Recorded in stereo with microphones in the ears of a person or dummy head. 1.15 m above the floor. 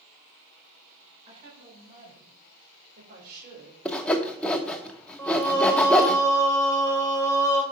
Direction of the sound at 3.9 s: 10° left (ahead or behind).